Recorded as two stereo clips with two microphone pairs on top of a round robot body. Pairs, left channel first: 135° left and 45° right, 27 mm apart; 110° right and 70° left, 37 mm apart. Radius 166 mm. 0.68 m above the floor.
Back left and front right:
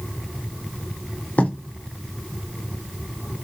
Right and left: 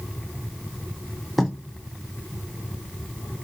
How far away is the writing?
About 2 m.